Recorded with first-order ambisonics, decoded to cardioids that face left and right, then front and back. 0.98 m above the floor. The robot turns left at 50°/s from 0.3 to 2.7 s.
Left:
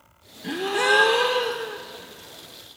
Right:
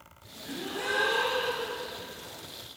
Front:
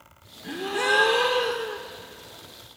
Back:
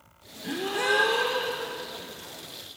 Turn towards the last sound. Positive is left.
turn(degrees=-10)